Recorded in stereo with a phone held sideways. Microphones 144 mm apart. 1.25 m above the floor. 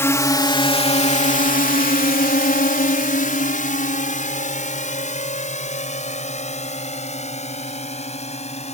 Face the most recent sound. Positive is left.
turn(degrees=45)  # may be behind; listen again after turning